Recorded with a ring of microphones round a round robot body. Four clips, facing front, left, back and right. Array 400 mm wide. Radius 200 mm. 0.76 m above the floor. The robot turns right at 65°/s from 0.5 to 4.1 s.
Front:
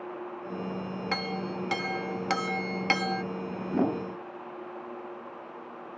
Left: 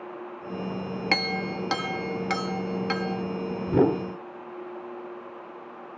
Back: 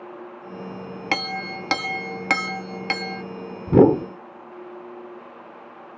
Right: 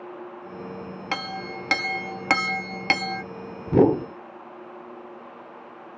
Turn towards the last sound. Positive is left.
turn(degrees=-150)